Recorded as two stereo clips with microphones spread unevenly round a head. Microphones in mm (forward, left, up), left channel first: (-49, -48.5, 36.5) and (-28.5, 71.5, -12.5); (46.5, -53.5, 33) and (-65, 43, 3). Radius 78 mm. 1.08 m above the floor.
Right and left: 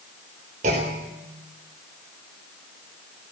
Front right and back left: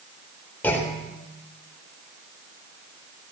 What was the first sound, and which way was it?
A clunk, 40° left.